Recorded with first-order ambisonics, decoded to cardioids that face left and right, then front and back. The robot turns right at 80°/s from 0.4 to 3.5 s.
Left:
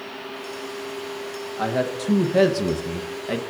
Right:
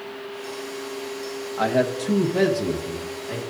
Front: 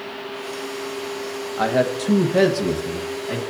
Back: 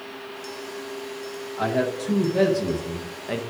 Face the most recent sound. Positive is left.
turn(degrees=125)